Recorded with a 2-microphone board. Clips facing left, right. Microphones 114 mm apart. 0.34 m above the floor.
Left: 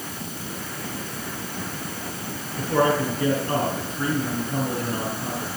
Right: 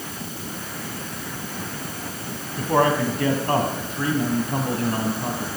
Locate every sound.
2.6 s a man speaking: 60° right (ahead or behind), 3 m